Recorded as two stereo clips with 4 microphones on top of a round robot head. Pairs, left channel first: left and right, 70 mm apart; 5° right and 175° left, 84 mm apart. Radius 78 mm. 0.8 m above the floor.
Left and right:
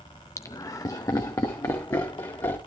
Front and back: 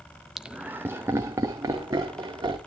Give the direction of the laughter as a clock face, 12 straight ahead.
9 o'clock.